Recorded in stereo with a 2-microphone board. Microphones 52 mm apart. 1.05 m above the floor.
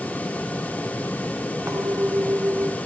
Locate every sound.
1.7 s a clink: 80° right, 1.9 m